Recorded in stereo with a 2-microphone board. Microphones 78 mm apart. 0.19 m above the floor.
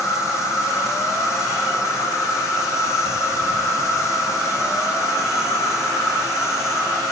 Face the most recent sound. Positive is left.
turn(degrees=40)  # may be behind; listen again after turning